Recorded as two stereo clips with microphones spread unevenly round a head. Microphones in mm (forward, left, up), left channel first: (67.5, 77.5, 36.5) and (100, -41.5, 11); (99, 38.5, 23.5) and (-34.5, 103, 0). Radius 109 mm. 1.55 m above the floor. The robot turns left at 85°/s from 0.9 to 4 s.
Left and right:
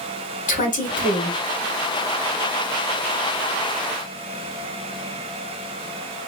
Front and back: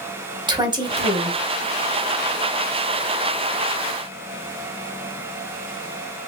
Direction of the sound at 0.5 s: 90° left.